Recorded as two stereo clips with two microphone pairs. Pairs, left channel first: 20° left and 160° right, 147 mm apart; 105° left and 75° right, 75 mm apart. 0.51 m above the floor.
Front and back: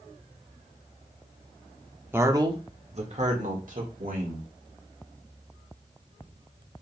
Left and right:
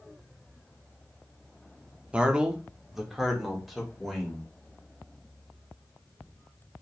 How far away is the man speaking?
About 0.7 m.